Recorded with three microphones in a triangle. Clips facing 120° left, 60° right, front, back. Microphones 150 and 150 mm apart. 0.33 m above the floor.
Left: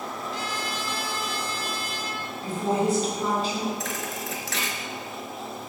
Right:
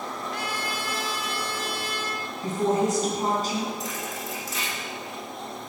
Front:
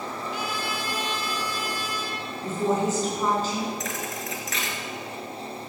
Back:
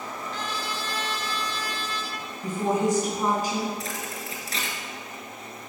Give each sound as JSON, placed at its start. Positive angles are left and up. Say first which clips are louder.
{"t": 0.3, "sound": "a trumpet", "louder": "even, front 1 dB", "azimuth_deg": -80, "distance_m": 1.4}
{"t": 2.4, "sound": "a woman speaking", "louder": "right 1 dB, even", "azimuth_deg": -105, "distance_m": 3.0}
{"t": 3.8, "sound": "a thud", "louder": "left 1 dB, front 2 dB", "azimuth_deg": 125, "distance_m": 2.0}